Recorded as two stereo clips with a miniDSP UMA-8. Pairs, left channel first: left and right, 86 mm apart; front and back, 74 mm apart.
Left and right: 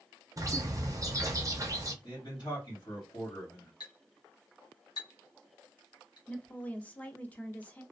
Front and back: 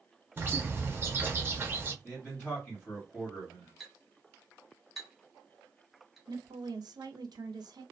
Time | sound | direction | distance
0.4 | a bird | 125° right | 0.5 m
2.0 | a man speaking | 75° left | 1.4 m
3.8 | a clink | 95° left | 0.9 m
6.3 | a woman speaking | 160° left | 0.6 m